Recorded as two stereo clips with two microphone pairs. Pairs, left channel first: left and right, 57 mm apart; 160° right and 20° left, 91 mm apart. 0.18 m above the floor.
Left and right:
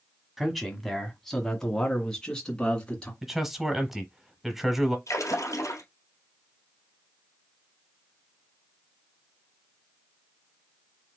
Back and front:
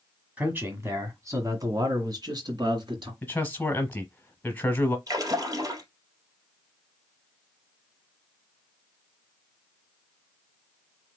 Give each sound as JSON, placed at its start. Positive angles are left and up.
{"t": 0.4, "sound": "a man speaking", "azimuth_deg": -15, "distance_m": 1.6}
{"t": 3.2, "sound": "a man speaking", "azimuth_deg": -160, "distance_m": 1.1}
{"t": 5.1, "sound": "a splash", "azimuth_deg": 65, "distance_m": 1.9}